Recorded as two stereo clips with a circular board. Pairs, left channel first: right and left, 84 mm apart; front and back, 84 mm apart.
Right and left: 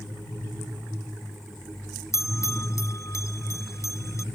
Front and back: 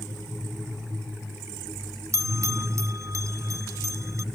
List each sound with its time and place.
2.1 s a bell: 135° right